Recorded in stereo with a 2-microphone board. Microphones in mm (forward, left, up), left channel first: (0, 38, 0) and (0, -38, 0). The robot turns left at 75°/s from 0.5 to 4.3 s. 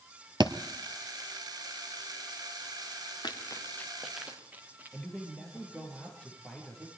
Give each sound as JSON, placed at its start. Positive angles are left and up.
{"t": 0.4, "sound": "a thud", "side_deg": -90, "distance_m": 1.3}
{"t": 3.2, "sound": "running footsteps", "side_deg": 70, "distance_m": 3.0}
{"t": 4.9, "sound": "a man speaking", "side_deg": 10, "distance_m": 6.5}